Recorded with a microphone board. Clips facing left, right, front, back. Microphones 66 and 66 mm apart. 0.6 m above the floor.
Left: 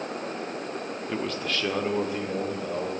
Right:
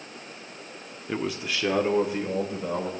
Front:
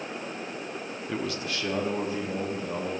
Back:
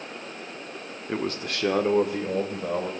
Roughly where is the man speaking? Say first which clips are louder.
Right 1 dB, back 3 dB; behind.